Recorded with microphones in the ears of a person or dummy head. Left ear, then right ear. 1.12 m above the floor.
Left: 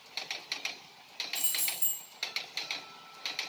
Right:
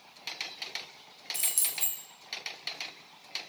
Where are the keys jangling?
55° right (ahead or behind), 0.5 m.